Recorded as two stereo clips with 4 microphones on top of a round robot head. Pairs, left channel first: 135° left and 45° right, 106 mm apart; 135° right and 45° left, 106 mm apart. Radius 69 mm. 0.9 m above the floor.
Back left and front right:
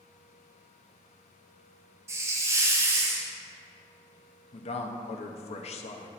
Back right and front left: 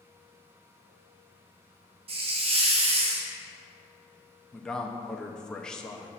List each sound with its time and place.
2.1 s a hiss: 20° left, 1.2 m
4.5 s a man speaking: 140° left, 0.9 m